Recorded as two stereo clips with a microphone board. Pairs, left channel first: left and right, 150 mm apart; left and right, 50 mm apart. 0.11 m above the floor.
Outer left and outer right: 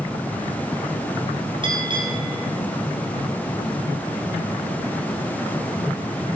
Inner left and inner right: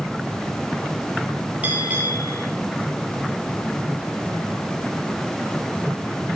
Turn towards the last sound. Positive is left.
turn(degrees=-35)  # may be behind; listen again after turning